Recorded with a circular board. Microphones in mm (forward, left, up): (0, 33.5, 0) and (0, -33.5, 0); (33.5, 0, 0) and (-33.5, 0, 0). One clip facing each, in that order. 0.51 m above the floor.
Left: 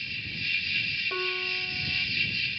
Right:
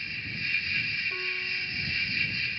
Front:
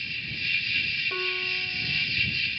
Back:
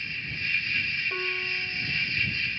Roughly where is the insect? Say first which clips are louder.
Right 1 dB, back 1 dB; behind right.